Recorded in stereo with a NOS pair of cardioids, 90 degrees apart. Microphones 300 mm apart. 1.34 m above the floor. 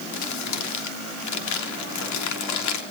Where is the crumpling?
70° left, 3 m.